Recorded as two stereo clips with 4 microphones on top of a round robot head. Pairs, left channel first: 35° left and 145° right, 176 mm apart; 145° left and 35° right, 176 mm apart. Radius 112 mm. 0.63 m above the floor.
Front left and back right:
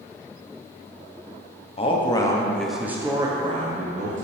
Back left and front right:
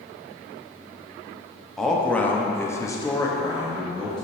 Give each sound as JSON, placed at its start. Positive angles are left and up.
{"t": 1.8, "sound": "a man speaking", "azimuth_deg": 60, "distance_m": 1.2}